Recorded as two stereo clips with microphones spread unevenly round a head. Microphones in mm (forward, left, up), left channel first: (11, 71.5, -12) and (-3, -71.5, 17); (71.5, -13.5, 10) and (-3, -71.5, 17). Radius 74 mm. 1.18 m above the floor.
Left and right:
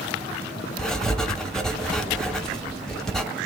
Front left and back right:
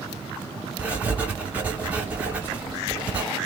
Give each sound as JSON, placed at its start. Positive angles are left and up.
{"t": 0.8, "sound": "writing", "azimuth_deg": -160, "distance_m": 0.8}